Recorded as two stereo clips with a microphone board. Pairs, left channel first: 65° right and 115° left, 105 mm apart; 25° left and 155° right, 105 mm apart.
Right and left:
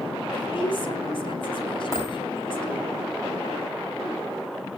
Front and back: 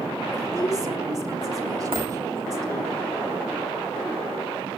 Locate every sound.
0.3 s a woman speaking: 105° right, 3 m
1.9 s a dropped coin: 125° right, 7.5 m